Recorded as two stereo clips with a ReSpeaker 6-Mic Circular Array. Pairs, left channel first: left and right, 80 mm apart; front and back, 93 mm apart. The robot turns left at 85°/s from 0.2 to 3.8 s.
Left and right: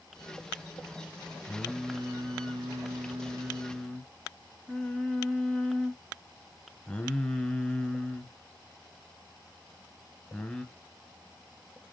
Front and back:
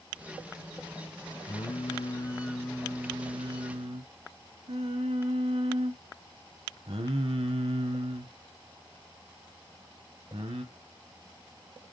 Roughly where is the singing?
Ahead.